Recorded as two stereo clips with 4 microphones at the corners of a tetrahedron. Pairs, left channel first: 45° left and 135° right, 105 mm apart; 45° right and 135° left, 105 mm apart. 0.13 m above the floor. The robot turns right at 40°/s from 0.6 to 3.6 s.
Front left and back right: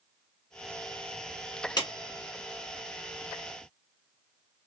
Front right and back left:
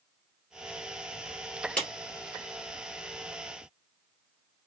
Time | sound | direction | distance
1.8 | a clap | 30° left | 1.4 m